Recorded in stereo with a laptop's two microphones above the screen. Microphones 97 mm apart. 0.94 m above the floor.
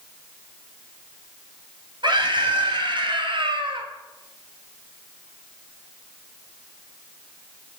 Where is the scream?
55° right (ahead or behind), 5.5 m; by 3.9 s 65° right (ahead or behind), 3 m.